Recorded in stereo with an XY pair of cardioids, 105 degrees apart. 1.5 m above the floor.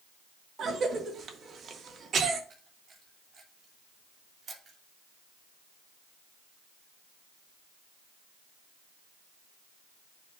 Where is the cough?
55° right, 1.8 m.